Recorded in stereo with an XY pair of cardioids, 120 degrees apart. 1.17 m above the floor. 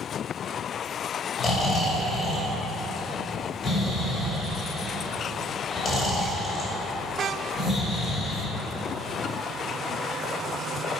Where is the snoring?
40° left, 1.9 m.